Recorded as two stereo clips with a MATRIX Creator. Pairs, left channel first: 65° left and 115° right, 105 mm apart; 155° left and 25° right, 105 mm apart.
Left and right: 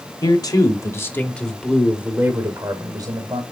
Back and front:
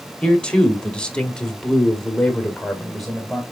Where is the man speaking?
80° left, 1.8 m; by 3.4 s 115° right, 1.9 m.